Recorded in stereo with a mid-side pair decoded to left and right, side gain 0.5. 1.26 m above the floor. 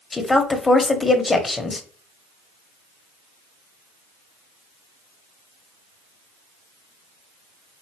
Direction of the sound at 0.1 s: 20° left.